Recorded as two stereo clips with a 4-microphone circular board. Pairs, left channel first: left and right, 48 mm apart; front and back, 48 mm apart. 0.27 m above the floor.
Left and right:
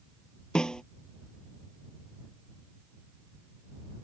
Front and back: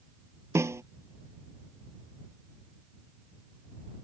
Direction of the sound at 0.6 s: 165° left.